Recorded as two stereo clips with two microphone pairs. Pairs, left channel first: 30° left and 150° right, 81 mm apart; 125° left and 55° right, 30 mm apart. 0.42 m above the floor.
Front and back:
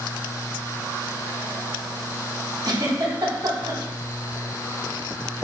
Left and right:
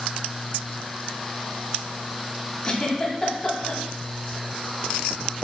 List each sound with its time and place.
2.6 s a giggle: 175° left, 0.8 m